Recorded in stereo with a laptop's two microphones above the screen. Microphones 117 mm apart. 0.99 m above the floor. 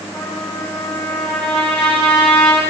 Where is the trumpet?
10° left (ahead or behind), 6.5 m.